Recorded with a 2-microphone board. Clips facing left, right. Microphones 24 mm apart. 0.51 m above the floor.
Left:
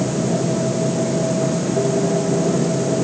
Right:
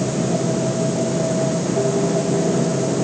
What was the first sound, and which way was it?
Only background noise.